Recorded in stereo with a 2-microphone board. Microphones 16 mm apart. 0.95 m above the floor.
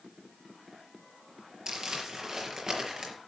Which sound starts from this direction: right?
Crumpling, at 1.7 s.